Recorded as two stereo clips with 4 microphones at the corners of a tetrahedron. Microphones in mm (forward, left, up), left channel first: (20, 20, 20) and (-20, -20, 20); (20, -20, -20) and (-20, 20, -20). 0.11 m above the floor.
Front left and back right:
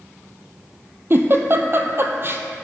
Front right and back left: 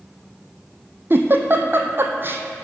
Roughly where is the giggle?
Behind.